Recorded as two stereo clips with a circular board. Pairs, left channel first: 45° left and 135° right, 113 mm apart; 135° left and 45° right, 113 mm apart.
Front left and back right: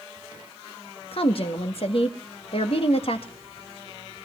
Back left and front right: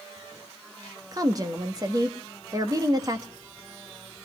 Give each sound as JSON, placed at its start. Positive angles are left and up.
{"t": 1.1, "sound": "a woman speaking", "azimuth_deg": 10, "distance_m": 1.8}